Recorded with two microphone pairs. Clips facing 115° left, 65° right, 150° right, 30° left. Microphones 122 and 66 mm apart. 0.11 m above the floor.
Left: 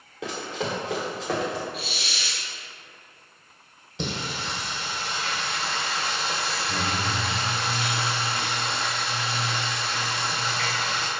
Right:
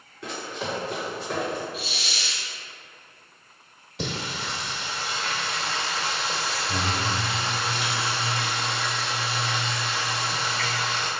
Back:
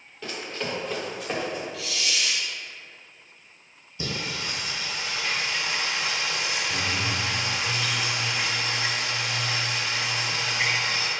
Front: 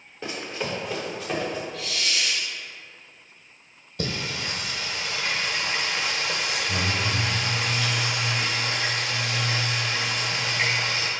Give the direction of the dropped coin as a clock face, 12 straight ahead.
No dropped coin in this recording.